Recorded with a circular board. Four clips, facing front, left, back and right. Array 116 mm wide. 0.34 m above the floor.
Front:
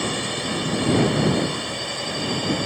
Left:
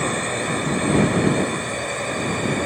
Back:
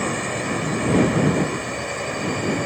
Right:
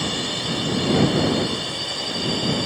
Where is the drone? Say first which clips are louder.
Left 4 dB, back 2 dB; 115° left.